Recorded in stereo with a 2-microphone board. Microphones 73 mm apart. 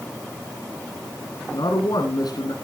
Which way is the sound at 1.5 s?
65° left (ahead or behind).